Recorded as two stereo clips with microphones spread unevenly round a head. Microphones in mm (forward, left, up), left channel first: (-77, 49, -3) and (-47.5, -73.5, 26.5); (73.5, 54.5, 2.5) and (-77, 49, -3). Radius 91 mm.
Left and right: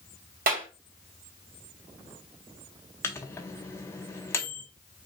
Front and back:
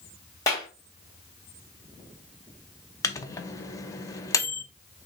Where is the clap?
70° right, 2 m.